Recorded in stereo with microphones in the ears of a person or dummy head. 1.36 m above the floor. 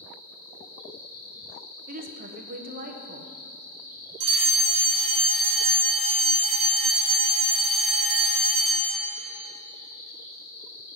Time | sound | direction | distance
0.0 | an insect | 25° left (ahead or behind) | 2.5 m
1.9 | a woman speaking | 55° right (ahead or behind) | 1.0 m
4.2 | a fire alarm | 20° right (ahead or behind) | 2.5 m